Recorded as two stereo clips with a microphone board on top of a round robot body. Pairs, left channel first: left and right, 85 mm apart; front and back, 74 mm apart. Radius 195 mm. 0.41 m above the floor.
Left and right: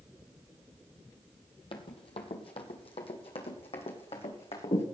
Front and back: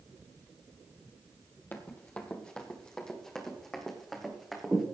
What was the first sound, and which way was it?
Running footsteps, 65° left.